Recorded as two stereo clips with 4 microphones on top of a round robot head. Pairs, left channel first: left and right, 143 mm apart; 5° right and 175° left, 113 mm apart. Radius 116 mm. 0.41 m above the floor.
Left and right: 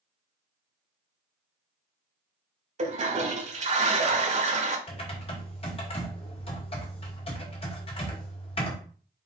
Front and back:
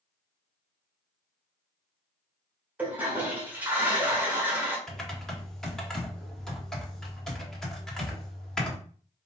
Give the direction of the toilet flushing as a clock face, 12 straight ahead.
4 o'clock.